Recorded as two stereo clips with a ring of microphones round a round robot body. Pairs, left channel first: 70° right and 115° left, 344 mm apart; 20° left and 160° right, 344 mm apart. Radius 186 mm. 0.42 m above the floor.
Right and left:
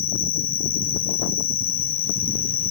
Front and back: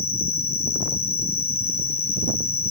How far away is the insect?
About 1.1 m.